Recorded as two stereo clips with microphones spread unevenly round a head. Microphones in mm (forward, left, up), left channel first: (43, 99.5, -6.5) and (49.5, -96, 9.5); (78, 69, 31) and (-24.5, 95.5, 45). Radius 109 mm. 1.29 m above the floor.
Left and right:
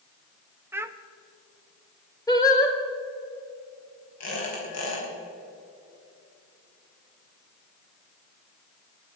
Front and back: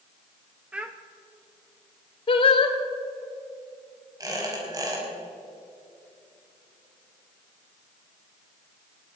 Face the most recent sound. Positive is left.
turn(degrees=110)